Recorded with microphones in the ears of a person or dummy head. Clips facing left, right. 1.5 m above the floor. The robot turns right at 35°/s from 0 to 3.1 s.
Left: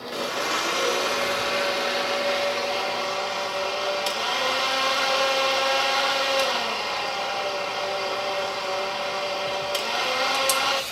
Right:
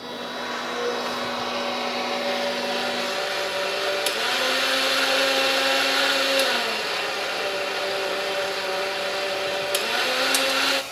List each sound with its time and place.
0.1 s a blender: 100° left, 0.8 m; by 10.8 s 155° right, 0.8 m